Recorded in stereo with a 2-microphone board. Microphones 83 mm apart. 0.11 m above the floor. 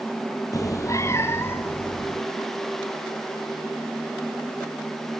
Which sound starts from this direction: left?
A cat meowing, at 0.5 s.